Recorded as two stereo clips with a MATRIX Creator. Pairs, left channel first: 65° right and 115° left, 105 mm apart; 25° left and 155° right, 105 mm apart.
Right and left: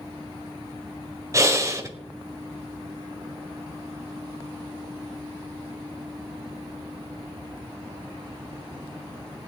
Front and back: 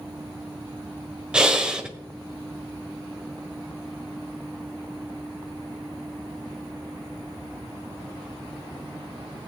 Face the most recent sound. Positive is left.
turn(degrees=130)